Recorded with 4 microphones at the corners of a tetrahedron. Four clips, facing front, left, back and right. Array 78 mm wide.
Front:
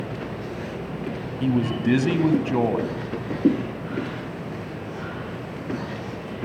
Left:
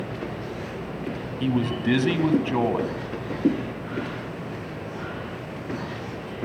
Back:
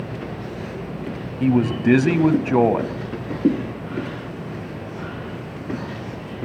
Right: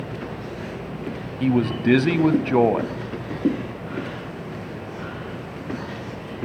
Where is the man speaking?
155° right, 1.0 m.